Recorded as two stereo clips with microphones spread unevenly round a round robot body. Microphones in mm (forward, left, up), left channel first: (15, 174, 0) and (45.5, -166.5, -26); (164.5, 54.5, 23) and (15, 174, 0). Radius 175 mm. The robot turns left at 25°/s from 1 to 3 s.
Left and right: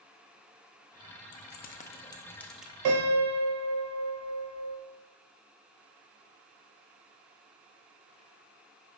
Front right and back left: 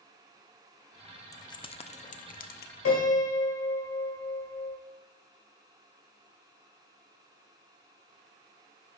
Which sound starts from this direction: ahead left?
Keys jangling, at 1.3 s.